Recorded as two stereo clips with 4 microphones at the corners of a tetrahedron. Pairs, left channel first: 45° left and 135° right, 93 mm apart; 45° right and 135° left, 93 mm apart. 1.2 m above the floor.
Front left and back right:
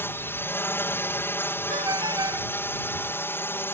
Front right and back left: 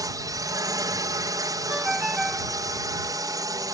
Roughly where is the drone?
Left.